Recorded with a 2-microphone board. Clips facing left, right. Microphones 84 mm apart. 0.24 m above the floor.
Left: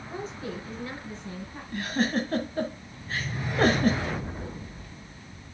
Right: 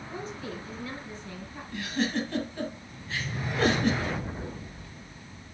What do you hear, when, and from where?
0.1 s a woman speaking: 30° left (ahead or behind), 4 m
1.7 s a giggle: 40° left (ahead or behind), 1.6 m